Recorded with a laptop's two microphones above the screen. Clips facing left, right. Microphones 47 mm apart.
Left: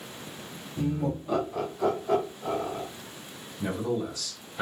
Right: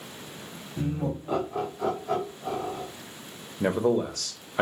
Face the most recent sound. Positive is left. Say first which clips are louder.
# right 6 dB
turn(degrees=-55)  # may be behind; listen again after turning